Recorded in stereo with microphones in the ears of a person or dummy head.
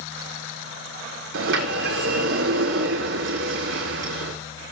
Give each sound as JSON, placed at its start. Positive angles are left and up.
{"t": 1.3, "sound": "a sliding door", "side_deg": -80, "distance_m": 4.0}